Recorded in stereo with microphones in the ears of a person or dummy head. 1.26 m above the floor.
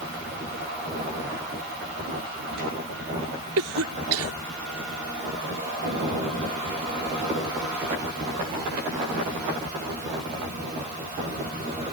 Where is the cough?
85° right.